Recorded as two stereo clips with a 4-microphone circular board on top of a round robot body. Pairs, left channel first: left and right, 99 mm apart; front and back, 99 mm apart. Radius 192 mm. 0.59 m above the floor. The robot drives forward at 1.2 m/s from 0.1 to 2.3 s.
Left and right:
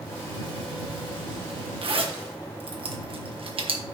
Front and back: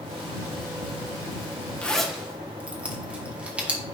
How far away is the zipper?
About 1.4 m.